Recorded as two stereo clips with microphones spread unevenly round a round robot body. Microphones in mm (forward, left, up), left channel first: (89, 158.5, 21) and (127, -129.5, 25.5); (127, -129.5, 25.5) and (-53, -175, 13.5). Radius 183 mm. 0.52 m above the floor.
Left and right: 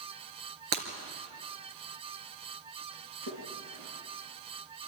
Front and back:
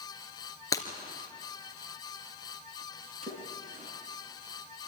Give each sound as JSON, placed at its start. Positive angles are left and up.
{"t": 0.7, "sound": "breaking glass", "azimuth_deg": -60, "distance_m": 3.0}
{"t": 3.2, "sound": "a splash", "azimuth_deg": -115, "distance_m": 5.5}